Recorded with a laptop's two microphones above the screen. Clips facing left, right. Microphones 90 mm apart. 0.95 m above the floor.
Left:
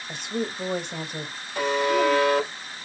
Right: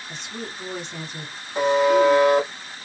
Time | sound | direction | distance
0.1 | a woman speaking | 55° left (ahead or behind) | 1.6 m
1.6 | a buzzer | 25° right (ahead or behind) | 1.5 m